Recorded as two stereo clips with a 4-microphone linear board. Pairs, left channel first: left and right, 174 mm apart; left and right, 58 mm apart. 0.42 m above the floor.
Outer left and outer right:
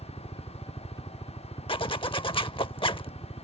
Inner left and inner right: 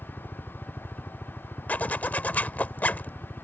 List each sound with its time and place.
0.0 s a helicopter: 25° left (ahead or behind)
1.7 s a zipper: 30° left (ahead or behind)